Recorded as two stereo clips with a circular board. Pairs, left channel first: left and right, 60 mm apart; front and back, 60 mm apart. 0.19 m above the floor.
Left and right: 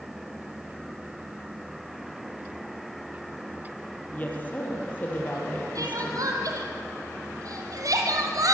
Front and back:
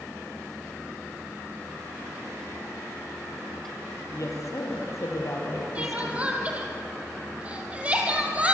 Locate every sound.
4.1 s a woman speaking: 30° left, 5.5 m
5.8 s crying: 110° right, 3 m